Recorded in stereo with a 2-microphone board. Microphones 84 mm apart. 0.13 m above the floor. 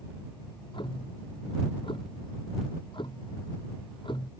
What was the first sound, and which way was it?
Ticking, 75° left (ahead or behind).